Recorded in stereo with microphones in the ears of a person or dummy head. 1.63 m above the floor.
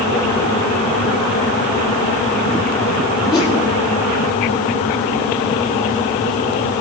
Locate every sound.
3.3 s a whoosh: 25° left (ahead or behind), 2 m